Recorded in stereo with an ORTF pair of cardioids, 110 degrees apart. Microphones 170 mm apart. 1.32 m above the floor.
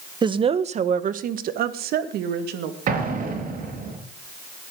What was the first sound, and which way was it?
A woman speaking, 25° right.